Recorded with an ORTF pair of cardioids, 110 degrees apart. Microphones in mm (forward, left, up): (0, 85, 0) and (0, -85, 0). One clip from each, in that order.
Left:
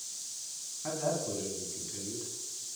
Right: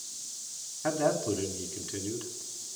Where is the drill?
No drill in this recording.